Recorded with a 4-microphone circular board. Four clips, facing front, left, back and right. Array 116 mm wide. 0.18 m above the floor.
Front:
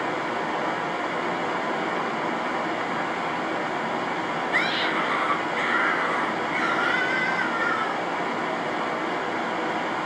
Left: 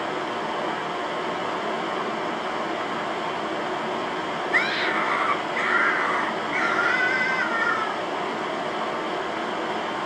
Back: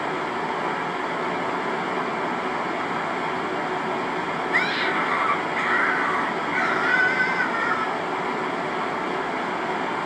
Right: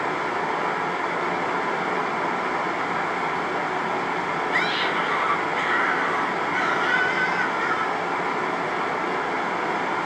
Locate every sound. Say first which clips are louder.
0.0 s running water: right 2 dB, back 1 dB; 100° right, 1.1 m
4.5 s a scream: left 2 dB, back 2 dB; 130° left, 1.2 m